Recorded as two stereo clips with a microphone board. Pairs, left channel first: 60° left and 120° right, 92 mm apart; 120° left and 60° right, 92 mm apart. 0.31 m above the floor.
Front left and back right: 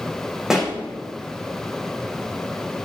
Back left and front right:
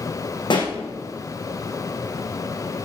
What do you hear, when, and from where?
0.5 s a pop: 155° left, 3.5 m